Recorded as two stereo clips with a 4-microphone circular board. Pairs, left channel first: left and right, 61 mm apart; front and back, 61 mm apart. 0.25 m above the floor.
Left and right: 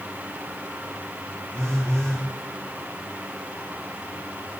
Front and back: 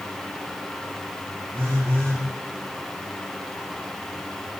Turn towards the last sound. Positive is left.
turn(degrees=-130)